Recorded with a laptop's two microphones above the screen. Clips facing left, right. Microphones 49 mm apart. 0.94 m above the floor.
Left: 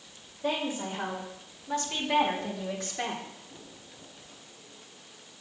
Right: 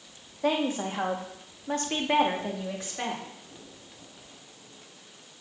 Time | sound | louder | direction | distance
0.4 | a woman speaking | right 4 dB | 70° right (ahead or behind) | 2.0 m